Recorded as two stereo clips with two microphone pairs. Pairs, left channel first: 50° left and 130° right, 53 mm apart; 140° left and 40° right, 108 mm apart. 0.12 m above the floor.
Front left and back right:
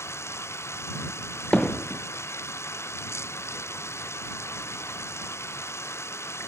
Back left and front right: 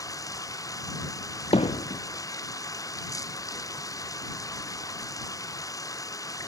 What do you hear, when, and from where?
0.0 s running water: 80° left
1.5 s hammering: 120° left